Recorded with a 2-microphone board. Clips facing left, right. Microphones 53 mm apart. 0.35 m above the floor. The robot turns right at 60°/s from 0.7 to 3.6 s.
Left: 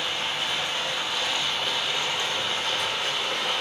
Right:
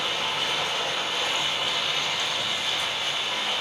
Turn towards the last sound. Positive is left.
turn(degrees=110)